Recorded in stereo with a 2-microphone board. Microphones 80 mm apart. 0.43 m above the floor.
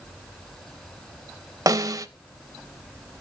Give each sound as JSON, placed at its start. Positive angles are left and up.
{"t": 1.7, "sound": "a snare drum", "side_deg": -45, "distance_m": 0.5}